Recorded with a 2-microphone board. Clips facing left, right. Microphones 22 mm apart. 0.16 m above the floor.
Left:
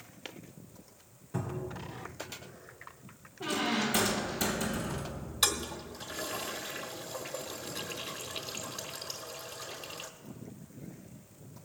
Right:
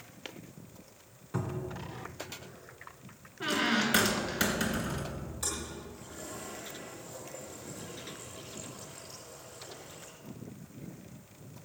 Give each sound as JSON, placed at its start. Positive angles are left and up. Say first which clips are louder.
{"t": 1.3, "sound": "a cupboard door", "louder": "right 1 dB", "side_deg": -35, "distance_m": 2.0}
{"t": 3.4, "sound": "a squeak", "louder": "right 2 dB", "side_deg": -50, "distance_m": 1.8}
{"t": 5.4, "sound": "a toilet flushing", "louder": "left 9 dB", "side_deg": 80, "distance_m": 1.2}